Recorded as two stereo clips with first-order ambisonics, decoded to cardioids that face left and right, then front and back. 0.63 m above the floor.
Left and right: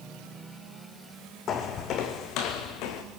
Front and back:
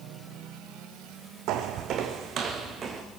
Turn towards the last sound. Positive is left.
turn(degrees=110)